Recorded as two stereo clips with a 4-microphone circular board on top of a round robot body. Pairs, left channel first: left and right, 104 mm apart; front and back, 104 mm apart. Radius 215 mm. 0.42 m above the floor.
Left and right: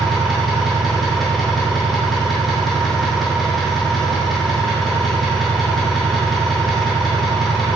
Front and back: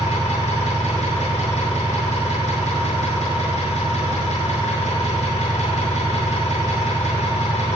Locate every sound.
0.0 s an engine running: straight ahead, 6.5 m